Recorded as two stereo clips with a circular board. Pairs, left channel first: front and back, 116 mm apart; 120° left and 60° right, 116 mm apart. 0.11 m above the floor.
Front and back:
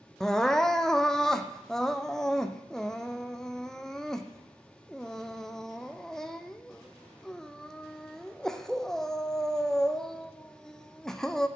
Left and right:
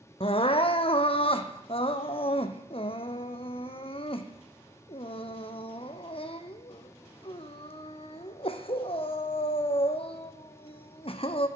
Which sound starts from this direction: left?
Crying, at 0.2 s.